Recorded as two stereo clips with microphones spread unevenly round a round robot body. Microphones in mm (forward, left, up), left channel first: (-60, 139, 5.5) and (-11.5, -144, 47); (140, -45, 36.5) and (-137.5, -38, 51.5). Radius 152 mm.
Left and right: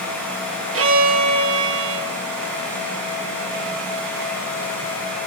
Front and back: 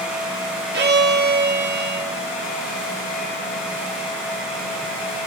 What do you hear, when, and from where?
0.7 s a violin: 125° right, 1.8 m